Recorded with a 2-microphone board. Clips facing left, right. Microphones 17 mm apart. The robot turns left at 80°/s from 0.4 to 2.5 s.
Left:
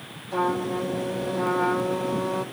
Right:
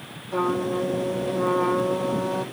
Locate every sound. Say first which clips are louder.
0.3 s a trumpet: right 1 dB; 145° left, 1.7 m; by 2.4 s 15° right, 1.7 m